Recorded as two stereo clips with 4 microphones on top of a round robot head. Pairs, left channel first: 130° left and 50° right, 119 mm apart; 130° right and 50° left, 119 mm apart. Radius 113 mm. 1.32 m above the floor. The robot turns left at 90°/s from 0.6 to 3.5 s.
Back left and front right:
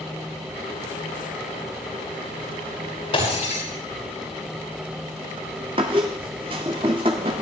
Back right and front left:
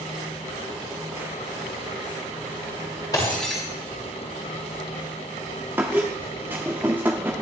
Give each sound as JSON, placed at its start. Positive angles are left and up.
{"t": 3.1, "sound": "breaking glass", "azimuth_deg": 175, "distance_m": 10.0}
{"t": 5.8, "sound": "a squeak", "azimuth_deg": -15, "distance_m": 0.9}